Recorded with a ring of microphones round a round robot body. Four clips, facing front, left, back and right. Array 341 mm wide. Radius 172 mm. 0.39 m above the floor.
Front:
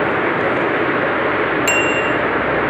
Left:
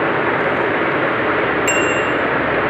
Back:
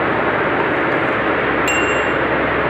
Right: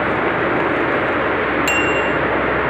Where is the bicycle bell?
50° right, 3.5 m.